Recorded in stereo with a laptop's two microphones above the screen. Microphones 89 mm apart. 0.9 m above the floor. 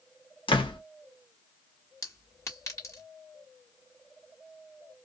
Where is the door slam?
80° left, 1.0 m.